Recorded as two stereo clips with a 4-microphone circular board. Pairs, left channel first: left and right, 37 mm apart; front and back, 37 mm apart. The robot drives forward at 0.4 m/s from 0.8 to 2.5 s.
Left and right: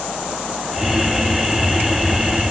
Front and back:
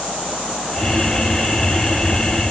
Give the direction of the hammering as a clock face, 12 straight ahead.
No hammering in this recording.